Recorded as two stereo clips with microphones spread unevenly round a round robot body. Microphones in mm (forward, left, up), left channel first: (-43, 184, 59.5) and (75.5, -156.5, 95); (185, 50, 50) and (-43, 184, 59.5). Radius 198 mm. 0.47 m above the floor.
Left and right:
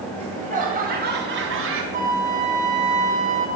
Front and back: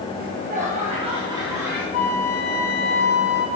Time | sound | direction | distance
0.2 | laughter | 145° right | 2.5 m
1.9 | a flute | straight ahead | 1.7 m